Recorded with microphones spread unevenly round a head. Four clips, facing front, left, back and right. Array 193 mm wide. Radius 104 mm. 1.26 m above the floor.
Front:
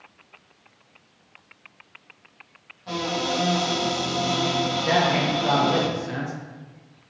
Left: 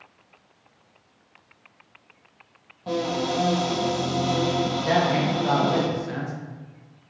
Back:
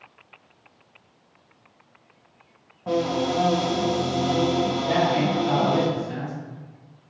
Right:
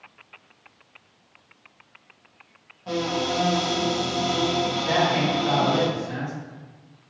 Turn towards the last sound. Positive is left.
turn(degrees=35)